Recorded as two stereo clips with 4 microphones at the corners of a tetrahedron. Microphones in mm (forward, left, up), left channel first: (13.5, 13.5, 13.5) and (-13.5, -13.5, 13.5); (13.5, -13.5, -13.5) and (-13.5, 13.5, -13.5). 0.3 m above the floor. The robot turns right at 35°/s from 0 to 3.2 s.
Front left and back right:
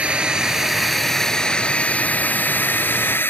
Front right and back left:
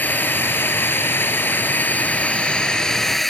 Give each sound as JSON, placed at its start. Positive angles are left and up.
{"t": 0.0, "sound": "a drone", "azimuth_deg": -80}